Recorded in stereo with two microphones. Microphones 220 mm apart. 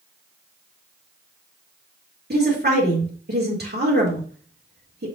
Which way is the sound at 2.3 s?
50° right (ahead or behind).